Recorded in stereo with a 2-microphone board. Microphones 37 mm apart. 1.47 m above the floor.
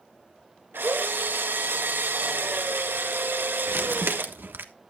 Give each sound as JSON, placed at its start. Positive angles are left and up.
{"t": 0.7, "sound": "a drill", "side_deg": -85, "distance_m": 2.0}
{"t": 3.7, "sound": "crumpling", "side_deg": -75, "distance_m": 1.3}